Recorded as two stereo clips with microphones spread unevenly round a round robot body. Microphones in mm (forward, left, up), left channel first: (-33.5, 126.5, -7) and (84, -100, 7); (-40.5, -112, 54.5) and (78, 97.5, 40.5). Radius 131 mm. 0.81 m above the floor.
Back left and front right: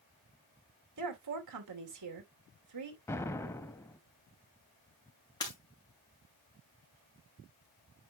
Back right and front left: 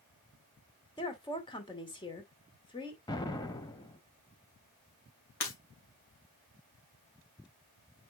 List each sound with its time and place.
1.0 s a woman speaking: 50° right, 2.5 m
3.1 s an explosion: 165° right, 0.6 m
5.4 s breaking glass: 165° right, 2.5 m